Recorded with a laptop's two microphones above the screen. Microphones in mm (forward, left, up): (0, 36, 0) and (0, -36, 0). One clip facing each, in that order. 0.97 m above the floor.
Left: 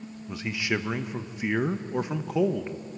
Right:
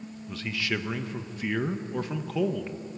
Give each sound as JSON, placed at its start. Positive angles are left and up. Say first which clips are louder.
{"t": 0.3, "sound": "a man speaking", "louder": "left 2 dB", "side_deg": 20, "distance_m": 0.6}